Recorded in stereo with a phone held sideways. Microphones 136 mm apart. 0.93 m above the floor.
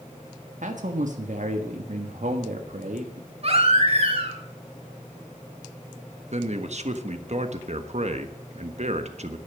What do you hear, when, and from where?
0.6 s a man speaking: 65° right (ahead or behind), 1.4 m
3.4 s a baby crying: 50° right (ahead or behind), 3.5 m
6.3 s a man speaking: 55° right (ahead or behind), 1.4 m